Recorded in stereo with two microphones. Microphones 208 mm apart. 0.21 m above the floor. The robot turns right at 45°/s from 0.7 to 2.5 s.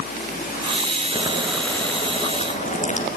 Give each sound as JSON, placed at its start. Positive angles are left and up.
{"t": 1.1, "sound": "boiling", "azimuth_deg": -25, "distance_m": 3.0}